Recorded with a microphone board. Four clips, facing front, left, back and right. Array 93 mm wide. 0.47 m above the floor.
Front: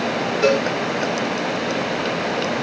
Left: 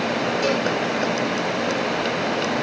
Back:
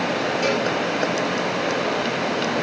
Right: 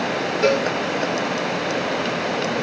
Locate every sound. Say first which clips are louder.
0.4 s a cowbell: right 6 dB, front 7 dB; 25° right, 4.5 m